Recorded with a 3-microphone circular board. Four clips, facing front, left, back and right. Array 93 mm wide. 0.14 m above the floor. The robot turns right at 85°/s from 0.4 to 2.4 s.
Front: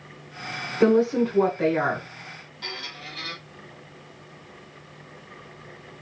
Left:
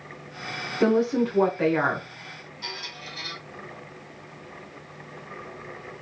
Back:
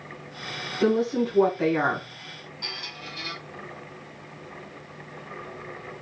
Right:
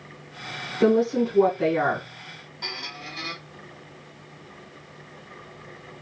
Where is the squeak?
85° right, 1.0 m.